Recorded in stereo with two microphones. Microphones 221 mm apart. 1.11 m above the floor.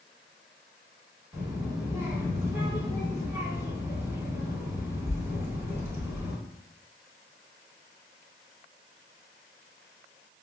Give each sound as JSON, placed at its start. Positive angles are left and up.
{"t": 1.3, "sound": "a child speaking", "side_deg": -10, "distance_m": 0.9}